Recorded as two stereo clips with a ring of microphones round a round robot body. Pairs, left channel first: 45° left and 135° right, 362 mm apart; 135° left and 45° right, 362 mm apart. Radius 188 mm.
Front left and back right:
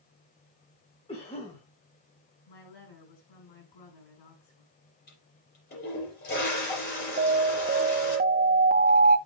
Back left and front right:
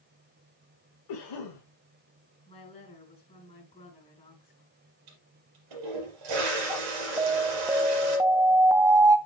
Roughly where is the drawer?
No drawer in this recording.